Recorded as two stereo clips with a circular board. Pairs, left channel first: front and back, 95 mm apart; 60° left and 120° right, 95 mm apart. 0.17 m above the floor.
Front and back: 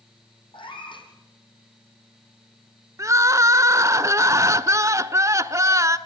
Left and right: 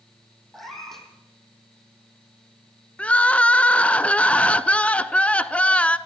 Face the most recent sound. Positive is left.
turn(degrees=135)